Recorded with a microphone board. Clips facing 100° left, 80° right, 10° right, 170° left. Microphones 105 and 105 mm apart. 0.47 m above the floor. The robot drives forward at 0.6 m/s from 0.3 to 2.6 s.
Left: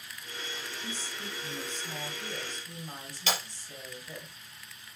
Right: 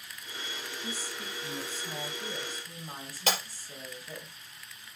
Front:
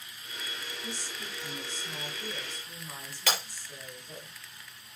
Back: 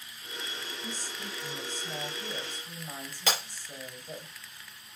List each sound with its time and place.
0.8 s a woman speaking: 155° right, 2.0 m; by 4.3 s 165° right, 3 m
3.3 s breaking glass: 125° right, 5 m